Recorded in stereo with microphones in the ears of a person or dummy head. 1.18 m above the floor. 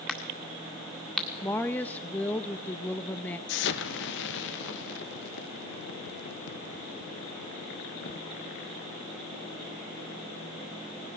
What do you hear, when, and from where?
0.1 s a crack: 5° left (ahead or behind), 1.9 m
1.4 s a woman speaking: 10° left (ahead or behind), 0.9 m
3.5 s an explosion: 65° left (ahead or behind), 1.3 m